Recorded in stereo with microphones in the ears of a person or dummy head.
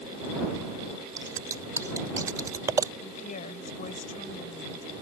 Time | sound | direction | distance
1.2 | scissors | 15° right (ahead or behind) | ?
3.0 | a woman speaking | 45° left (ahead or behind) | ?